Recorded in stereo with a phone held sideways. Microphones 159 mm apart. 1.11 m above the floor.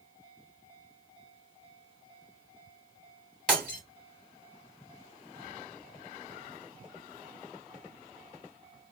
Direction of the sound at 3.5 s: 5° left (ahead or behind).